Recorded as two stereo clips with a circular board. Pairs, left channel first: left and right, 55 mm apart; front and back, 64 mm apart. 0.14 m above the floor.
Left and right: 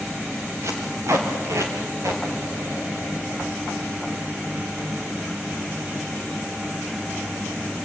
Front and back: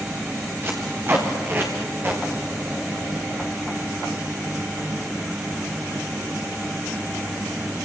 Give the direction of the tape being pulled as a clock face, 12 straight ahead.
4 o'clock.